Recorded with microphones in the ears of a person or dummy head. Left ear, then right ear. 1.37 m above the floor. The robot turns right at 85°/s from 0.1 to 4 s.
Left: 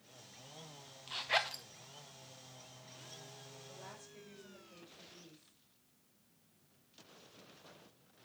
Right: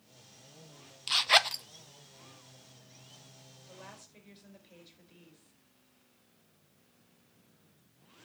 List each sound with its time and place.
1.1 s a zipper: 60° right (ahead or behind), 0.9 m; by 1.6 s 15° right (ahead or behind), 0.9 m
3.7 s a woman speaking: 60° right (ahead or behind), 5.5 m; by 5.5 s 30° right (ahead or behind), 5.5 m